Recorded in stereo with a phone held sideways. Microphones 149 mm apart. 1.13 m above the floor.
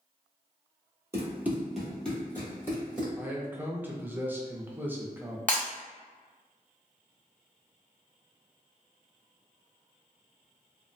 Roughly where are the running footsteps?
Centre.